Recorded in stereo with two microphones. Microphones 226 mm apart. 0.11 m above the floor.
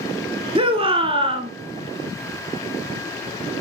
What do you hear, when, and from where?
0.6 s a shout: 25° right (ahead or behind), 1.1 m